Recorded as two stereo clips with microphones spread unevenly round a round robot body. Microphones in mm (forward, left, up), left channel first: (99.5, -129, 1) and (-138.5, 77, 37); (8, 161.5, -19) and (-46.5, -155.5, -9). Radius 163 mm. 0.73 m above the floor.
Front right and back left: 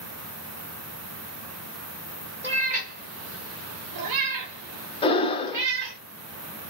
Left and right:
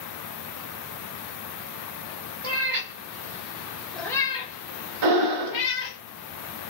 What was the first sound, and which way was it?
A cat meowing, 150° right.